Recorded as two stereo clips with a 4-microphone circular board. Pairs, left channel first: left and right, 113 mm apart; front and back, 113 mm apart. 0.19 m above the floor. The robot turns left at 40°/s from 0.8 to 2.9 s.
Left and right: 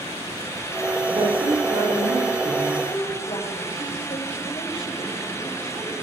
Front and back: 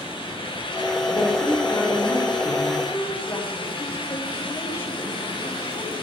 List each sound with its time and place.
1.1 s a woman speaking: 45° right, 4.5 m; by 2.7 s 110° right, 4.5 m
2.8 s a woman speaking: 65° left, 7 m; by 5.9 s 60° left, 7 m